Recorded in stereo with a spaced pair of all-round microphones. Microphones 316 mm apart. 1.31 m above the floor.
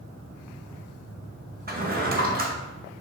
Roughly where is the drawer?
Right.